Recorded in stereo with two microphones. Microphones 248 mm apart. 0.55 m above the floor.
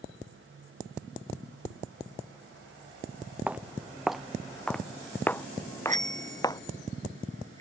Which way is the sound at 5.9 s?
30° right (ahead or behind).